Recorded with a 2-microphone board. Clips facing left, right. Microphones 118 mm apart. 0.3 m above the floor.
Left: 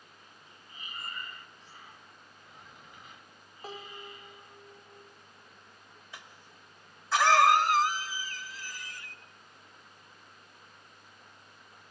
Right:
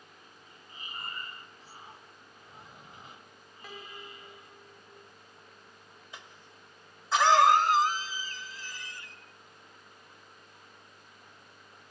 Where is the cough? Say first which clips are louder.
Right 1 dB; 20° right (ahead or behind), 1.4 m.